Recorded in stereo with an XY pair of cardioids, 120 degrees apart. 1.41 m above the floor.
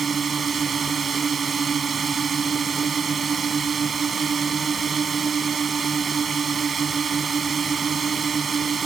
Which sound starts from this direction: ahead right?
A drone, at 0.0 s.